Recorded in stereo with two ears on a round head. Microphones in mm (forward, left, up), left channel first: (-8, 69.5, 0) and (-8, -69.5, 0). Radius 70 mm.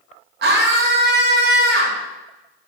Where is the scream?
70° right (ahead or behind), 0.9 m.